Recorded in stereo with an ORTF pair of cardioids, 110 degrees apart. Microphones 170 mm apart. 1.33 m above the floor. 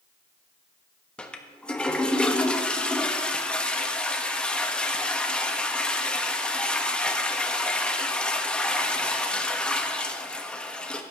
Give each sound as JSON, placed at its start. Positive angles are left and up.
{"t": 1.2, "sound": "a toilet flushing", "azimuth_deg": 5, "distance_m": 1.3}